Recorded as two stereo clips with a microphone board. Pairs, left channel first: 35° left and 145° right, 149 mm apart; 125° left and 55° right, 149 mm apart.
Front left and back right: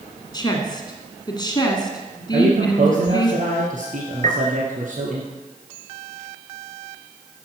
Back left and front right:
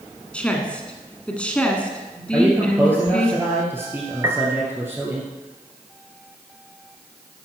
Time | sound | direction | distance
0.3 | a woman speaking | 50° left | 1.7 m
2.3 | a man speaking | 130° right | 2 m
4.2 | a piano | 125° right | 1.3 m